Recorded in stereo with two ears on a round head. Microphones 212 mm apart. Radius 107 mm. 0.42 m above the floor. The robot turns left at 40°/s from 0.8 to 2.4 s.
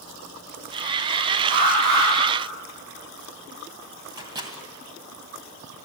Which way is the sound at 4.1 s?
20° right (ahead or behind).